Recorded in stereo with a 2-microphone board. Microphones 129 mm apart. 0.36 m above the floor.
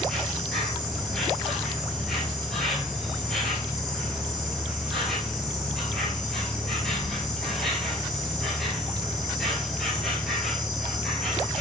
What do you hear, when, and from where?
0.0 s an insect: 5° left (ahead or behind), 1.6 m